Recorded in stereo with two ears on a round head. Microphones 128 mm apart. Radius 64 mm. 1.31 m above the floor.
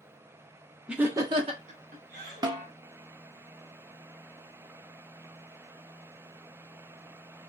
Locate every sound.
0.9 s laughter: 5° right (ahead or behind), 0.6 m; by 2.5 s 70° right (ahead or behind), 1.1 m
2.4 s a snare drum: 25° right (ahead or behind), 0.5 m